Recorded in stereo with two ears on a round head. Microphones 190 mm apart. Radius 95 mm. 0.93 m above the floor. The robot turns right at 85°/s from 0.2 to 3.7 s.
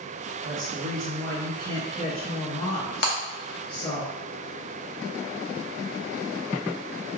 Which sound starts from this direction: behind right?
A woman speaking, at 0.4 s.